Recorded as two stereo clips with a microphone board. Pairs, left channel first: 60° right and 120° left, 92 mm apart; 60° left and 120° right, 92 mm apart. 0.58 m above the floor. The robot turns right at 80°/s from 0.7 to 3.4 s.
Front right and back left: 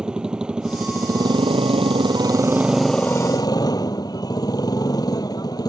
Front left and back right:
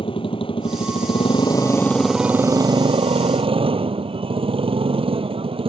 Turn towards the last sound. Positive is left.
turn(degrees=-105)